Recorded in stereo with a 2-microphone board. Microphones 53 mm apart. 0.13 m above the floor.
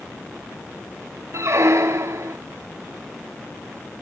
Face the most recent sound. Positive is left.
turn(degrees=-55)  # may be behind; listen again after turning